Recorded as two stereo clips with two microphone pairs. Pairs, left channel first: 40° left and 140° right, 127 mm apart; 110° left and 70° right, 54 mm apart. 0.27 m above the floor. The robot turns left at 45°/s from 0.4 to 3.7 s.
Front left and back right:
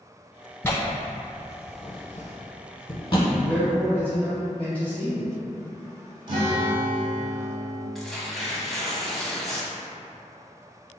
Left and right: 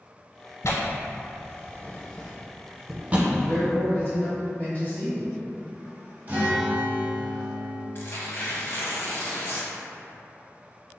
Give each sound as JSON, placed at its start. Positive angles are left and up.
{"t": 0.6, "sound": "tearing paper", "azimuth_deg": 110, "distance_m": 0.6}
{"t": 3.3, "sound": "a man speaking", "azimuth_deg": 130, "distance_m": 1.4}
{"t": 6.3, "sound": "a guitar", "azimuth_deg": -115, "distance_m": 0.9}
{"t": 8.0, "sound": "tearing paper", "azimuth_deg": 125, "distance_m": 0.6}